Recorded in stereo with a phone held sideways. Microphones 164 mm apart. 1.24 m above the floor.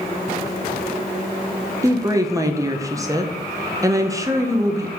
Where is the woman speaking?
20° right (ahead or behind), 1.1 m.